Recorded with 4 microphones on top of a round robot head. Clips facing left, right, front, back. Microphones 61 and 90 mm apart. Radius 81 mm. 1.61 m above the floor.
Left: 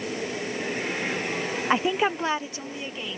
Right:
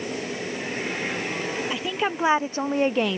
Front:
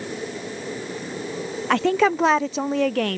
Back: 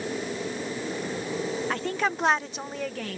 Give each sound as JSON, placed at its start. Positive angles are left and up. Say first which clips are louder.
{"t": 1.7, "sound": "a woman speaking", "louder": "left 7 dB, front 14 dB", "azimuth_deg": 25}